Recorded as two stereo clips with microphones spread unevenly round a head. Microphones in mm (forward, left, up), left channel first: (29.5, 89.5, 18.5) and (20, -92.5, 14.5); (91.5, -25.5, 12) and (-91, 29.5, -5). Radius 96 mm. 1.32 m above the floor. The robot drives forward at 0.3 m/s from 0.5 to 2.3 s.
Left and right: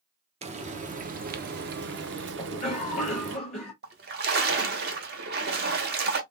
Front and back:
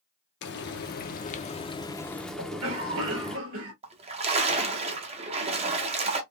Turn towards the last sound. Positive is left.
turn(degrees=-135)